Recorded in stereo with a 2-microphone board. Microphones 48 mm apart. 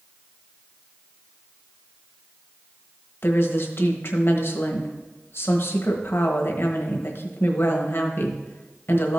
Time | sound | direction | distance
3.2 | a woman speaking | 60° left (ahead or behind) | 1.2 m